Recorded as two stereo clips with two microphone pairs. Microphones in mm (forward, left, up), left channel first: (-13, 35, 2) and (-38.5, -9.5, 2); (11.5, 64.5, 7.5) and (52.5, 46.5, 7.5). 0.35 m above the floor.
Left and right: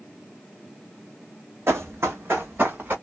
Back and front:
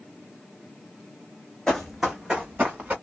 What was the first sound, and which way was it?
Running footsteps, 130° right.